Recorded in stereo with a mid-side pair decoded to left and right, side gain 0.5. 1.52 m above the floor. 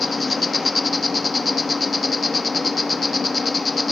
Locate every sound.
0.0 s an insect: 20° left, 1.8 m